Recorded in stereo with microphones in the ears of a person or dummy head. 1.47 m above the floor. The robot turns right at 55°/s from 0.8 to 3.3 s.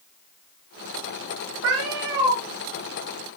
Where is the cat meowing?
95° right, 3 m; by 2.4 s 50° right, 3 m.